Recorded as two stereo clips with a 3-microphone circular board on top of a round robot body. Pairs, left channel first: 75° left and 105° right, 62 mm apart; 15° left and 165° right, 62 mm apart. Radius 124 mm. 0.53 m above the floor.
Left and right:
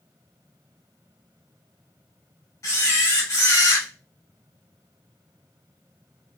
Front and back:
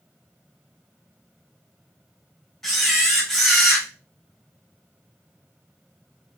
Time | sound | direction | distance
2.6 | a camera shutter | 105° left | 1.8 m